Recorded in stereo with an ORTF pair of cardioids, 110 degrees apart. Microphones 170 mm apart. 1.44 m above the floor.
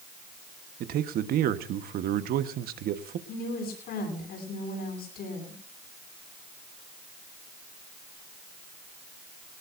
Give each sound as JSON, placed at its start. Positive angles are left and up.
{"t": 0.8, "sound": "a man speaking", "azimuth_deg": -65, "distance_m": 1.3}
{"t": 3.3, "sound": "a woman speaking", "azimuth_deg": 70, "distance_m": 9.0}